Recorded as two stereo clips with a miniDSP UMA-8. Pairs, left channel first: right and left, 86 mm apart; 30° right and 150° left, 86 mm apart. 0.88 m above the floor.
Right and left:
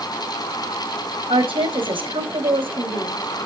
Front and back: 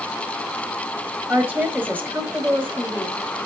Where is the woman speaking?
80° left, 4.5 m.